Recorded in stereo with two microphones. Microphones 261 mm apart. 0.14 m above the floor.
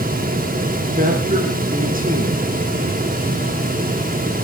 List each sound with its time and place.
0.9 s a man speaking: 35° right (ahead or behind), 6 m